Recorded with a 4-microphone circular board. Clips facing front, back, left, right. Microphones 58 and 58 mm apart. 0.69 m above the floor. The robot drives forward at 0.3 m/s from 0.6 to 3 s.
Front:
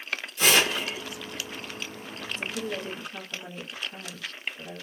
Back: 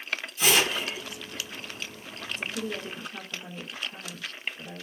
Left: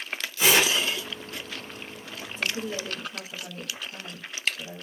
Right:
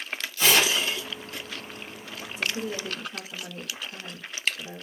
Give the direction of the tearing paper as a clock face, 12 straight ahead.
11 o'clock.